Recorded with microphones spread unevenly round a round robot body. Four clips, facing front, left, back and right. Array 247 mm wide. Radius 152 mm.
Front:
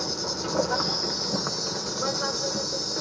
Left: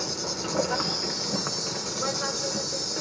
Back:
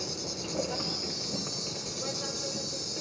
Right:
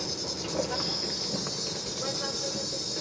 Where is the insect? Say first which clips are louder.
Left 3 dB, front 7 dB; 30° left, 0.9 m.